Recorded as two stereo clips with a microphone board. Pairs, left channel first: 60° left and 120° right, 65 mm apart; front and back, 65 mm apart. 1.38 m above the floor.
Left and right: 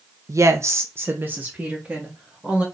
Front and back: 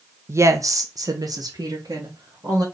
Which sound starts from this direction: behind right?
A woman speaking, at 0.3 s.